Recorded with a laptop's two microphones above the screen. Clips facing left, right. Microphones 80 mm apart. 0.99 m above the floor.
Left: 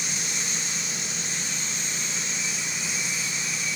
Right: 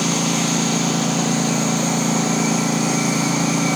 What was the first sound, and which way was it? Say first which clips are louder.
A lawn mower: right 15 dB; 75° right (ahead or behind).